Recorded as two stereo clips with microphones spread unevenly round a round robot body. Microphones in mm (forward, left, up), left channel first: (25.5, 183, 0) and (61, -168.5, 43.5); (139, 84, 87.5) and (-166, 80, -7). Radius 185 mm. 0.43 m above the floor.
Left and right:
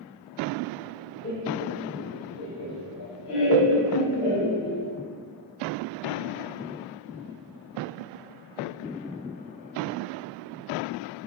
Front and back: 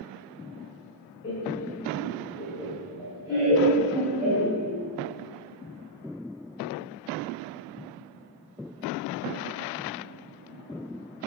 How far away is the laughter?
About 1.7 m.